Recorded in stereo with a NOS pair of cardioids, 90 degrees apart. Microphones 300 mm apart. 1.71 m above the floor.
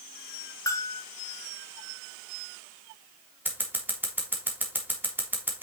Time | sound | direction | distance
0.7 | a bell | 10° left | 1.6 m
3.5 | scissors | 5° right | 3.5 m